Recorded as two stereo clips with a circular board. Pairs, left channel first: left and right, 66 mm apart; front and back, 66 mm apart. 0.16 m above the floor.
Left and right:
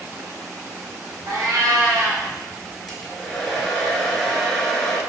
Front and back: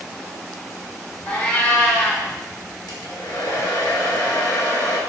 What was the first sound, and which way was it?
A cat meowing, 65° right.